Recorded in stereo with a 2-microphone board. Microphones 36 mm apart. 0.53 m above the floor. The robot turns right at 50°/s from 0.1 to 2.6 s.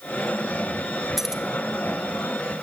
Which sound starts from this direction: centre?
Keys jangling, at 1.2 s.